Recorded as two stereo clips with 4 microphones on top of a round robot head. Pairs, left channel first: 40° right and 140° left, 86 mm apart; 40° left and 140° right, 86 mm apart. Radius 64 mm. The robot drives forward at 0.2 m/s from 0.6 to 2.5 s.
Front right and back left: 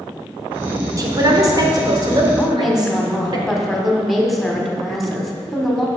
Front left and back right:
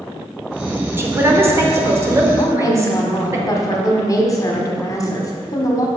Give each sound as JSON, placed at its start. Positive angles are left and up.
{"t": 1.0, "sound": "a man speaking", "azimuth_deg": 165, "distance_m": 1.2}
{"t": 2.4, "sound": "a woman speaking", "azimuth_deg": 50, "distance_m": 1.3}